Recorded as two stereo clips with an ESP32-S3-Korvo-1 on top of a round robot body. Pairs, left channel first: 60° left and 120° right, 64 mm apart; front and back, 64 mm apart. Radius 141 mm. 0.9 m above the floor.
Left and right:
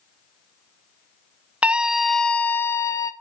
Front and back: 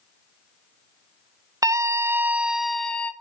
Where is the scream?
175° left, 0.7 m; by 3.1 s 65° left, 0.6 m.